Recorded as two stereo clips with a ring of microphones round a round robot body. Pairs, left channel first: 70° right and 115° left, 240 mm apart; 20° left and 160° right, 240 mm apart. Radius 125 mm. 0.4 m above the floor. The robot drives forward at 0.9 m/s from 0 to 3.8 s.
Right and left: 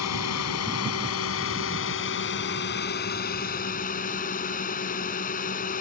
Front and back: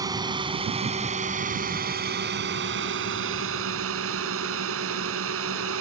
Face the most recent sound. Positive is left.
turn(degrees=-125)